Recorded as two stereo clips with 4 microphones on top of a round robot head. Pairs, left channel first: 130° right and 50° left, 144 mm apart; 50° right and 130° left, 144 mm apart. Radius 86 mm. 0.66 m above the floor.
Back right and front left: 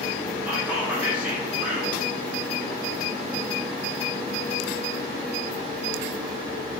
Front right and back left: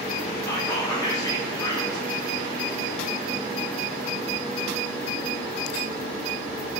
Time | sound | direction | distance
0.5 | whispering | 20° right | 0.6 m